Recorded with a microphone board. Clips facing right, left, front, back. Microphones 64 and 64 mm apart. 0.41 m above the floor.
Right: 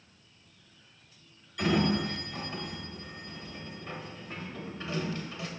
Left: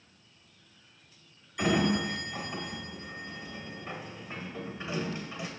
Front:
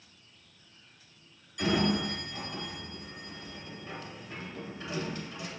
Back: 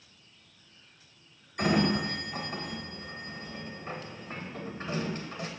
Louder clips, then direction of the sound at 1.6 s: Even, back 2 dB; 155° left.